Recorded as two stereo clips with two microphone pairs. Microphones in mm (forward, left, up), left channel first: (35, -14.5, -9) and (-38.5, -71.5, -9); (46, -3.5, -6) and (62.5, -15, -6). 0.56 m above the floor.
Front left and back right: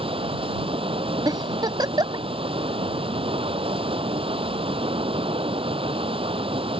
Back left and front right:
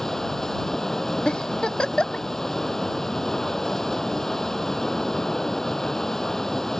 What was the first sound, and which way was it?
Running water, 150° right.